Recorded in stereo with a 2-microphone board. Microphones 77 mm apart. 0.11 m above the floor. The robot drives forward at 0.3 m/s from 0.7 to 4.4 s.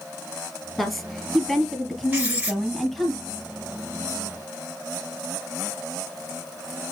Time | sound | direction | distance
0.8 | a woman speaking | 15° left (ahead or behind) | 1.3 m
2.1 | writing | 15° right (ahead or behind) | 1.8 m